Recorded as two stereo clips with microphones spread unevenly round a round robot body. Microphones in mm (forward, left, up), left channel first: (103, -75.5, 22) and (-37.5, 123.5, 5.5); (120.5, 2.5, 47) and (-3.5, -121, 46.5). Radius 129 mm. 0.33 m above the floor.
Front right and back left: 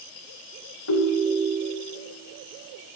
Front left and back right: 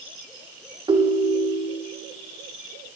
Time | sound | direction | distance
0.9 | a ringtone | 75° right | 0.9 m